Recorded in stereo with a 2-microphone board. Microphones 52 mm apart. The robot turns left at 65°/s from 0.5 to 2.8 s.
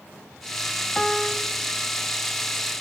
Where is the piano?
Straight ahead, 0.5 m; by 1.5 s 30° right, 0.5 m.